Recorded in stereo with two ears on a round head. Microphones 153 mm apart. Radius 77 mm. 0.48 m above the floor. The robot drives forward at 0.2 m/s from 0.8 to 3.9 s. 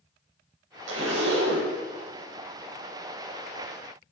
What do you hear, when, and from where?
0.9 s a zipper: 85° right, 0.8 m; by 1.7 s 70° right (ahead or behind), 0.8 m